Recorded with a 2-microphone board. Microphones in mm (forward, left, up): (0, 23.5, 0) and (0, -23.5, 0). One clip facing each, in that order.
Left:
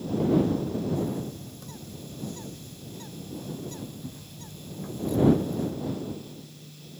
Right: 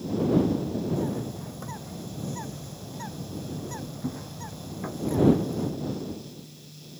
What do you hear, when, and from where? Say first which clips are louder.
1.0 s a bird: right 1 dB; 45° right (ahead or behind)